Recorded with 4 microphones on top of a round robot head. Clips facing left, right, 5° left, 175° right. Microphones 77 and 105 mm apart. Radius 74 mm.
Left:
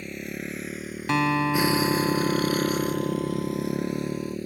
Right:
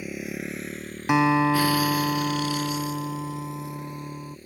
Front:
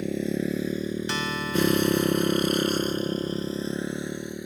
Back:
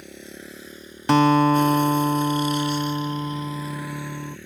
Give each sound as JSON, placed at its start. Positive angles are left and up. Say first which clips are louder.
{"t": 0.0, "sound": "a motorcycle", "louder": "right 2 dB, front 14 dB", "azimuth_deg": -10}
{"t": 1.1, "sound": "a guitar", "louder": "right 3 dB, back 17 dB", "azimuth_deg": -165}